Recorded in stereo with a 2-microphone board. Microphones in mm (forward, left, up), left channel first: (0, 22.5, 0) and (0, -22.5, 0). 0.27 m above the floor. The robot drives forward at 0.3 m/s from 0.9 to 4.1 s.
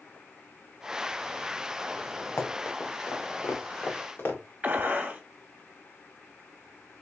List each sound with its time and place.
2.4 s running footsteps: 65° left (ahead or behind), 1.5 m; by 4.4 s 45° left (ahead or behind), 2.0 m
4.6 s a gunshot: 40° right (ahead or behind), 1.0 m